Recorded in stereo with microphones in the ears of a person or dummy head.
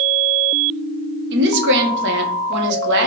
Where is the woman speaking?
60° right (ahead or behind), 0.9 m.